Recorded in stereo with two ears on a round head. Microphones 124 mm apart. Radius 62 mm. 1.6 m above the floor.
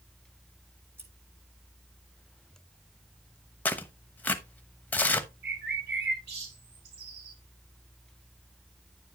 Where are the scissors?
20° right (ahead or behind), 3 m.